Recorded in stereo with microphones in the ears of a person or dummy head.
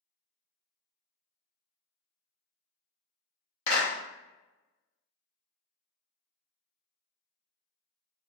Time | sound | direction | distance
3.7 | a clap | 35° left (ahead or behind) | 0.9 m